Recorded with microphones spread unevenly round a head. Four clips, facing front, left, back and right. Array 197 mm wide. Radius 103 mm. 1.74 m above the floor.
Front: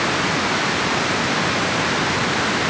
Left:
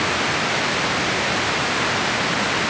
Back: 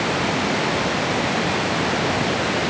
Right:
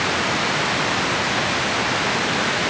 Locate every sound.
Only background noise.